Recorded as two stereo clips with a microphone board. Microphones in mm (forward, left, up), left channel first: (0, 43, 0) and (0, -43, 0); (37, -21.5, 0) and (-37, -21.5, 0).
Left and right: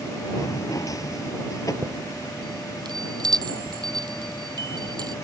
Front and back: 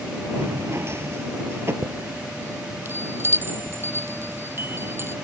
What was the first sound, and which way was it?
A drawer, 130° left.